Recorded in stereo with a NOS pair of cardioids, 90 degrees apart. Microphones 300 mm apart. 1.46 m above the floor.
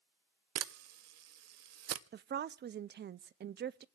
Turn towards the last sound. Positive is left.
turn(degrees=-35)